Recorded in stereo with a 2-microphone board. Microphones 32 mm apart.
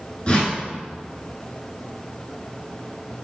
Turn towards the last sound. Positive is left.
turn(degrees=35)  # may be behind; listen again after turning